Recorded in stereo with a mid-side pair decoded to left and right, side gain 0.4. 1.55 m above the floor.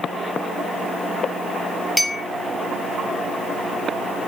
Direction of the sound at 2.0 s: 5° left.